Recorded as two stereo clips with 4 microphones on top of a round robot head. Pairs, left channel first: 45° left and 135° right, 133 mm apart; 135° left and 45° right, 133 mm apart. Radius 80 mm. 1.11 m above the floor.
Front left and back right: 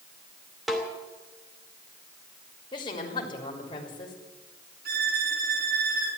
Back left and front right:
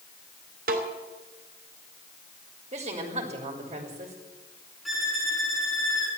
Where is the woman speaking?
5° right, 3 m.